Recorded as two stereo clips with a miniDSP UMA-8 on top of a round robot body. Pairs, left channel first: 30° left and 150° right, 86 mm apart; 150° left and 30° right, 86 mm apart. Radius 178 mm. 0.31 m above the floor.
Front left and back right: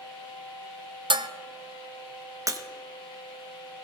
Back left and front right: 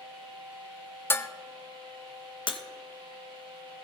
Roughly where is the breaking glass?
Behind.